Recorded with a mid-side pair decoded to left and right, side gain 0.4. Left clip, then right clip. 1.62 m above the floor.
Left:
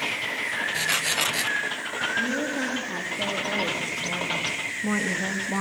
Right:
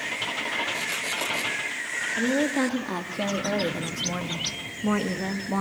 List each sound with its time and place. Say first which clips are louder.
2.1 s a woman speaking: right 5 dB; 55° right, 3.5 m; by 5.6 s 20° right, 2.5 m